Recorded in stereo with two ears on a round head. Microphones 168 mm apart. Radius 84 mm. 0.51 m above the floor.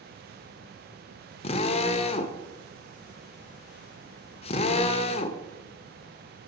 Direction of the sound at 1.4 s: 35° left (ahead or behind).